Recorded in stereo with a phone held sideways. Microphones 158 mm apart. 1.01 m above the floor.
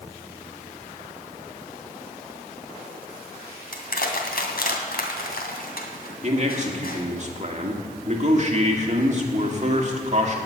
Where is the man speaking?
45° right (ahead or behind), 2 m.